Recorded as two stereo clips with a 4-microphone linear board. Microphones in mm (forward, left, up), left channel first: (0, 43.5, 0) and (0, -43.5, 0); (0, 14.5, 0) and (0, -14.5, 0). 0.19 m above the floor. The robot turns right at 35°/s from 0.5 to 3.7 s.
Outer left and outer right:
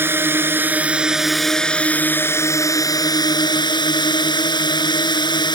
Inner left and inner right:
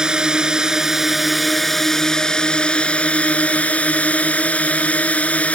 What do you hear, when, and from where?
0.0 s a drone: 30° right; by 5.5 s 80° left